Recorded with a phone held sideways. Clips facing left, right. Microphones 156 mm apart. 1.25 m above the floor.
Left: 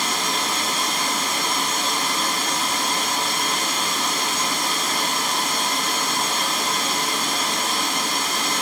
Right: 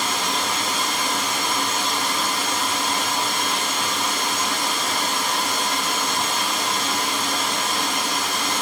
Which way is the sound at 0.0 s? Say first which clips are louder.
Right 1 dB; 5° left (ahead or behind).